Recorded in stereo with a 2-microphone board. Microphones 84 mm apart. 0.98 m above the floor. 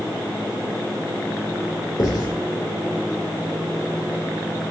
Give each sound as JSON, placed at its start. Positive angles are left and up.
{"t": 2.0, "sound": "writing", "side_deg": 55, "distance_m": 3.0}